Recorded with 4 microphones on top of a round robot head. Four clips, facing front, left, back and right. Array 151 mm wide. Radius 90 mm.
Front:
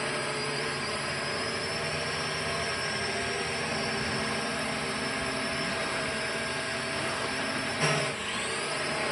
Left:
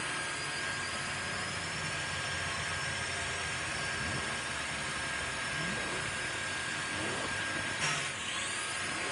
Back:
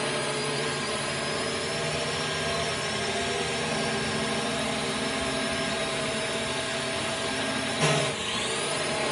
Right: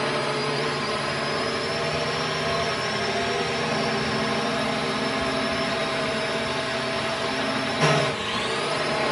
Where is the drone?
105° right.